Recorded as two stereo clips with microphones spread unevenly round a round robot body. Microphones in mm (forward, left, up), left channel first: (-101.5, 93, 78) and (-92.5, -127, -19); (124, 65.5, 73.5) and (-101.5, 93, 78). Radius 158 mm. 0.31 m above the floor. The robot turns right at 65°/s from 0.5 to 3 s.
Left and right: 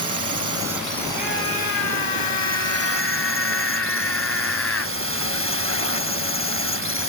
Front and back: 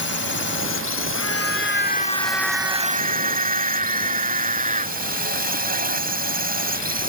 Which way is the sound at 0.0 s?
35° right.